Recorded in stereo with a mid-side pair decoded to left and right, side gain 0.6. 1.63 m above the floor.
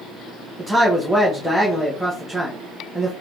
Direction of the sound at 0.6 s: 5° right.